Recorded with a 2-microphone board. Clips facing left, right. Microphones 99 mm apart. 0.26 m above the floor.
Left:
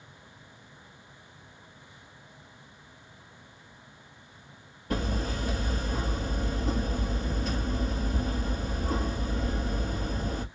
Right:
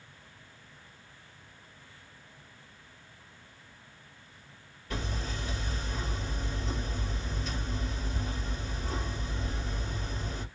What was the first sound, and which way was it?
Hammering, 45° left (ahead or behind).